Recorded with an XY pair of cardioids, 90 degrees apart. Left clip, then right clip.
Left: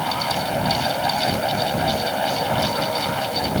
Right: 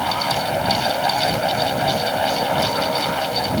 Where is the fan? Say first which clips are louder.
Right 2 dB; 20° right.